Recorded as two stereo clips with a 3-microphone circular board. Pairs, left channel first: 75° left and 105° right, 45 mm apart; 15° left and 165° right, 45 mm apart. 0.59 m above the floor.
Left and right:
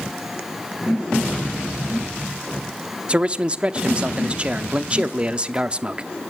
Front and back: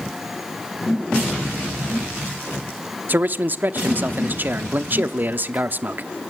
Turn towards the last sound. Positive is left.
turn(degrees=-160)